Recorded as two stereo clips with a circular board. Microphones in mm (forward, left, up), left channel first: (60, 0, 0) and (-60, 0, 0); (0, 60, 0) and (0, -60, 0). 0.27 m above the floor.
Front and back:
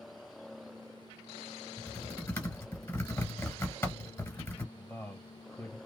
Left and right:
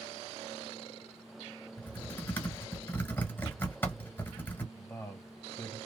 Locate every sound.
1.8 s typing on a keyboard: 45° left, 1.7 m
4.8 s a man speaking: 55° left, 1.6 m